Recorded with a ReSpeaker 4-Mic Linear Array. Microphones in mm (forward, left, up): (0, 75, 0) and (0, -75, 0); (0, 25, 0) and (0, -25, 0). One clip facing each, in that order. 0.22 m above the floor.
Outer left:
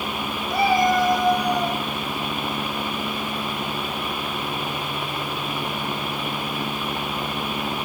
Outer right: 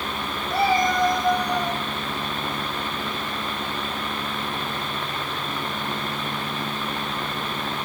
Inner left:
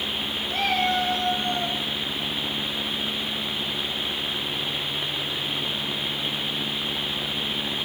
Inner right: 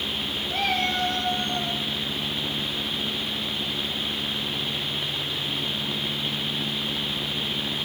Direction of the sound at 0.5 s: 5° right (ahead or behind).